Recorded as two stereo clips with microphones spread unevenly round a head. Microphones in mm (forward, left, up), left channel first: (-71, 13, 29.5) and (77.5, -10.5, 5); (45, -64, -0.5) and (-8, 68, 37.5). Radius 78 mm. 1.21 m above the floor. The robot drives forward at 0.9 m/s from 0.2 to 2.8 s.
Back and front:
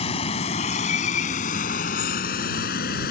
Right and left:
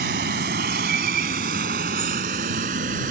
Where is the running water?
125° left; by 3.1 s 145° left.